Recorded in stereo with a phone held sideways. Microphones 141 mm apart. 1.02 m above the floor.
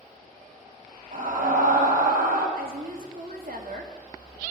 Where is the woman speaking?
75° right (ahead or behind), 2.5 m.